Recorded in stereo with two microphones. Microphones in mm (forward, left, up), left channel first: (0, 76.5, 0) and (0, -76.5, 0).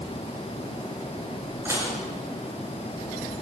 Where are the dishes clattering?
15° right (ahead or behind), 6 m.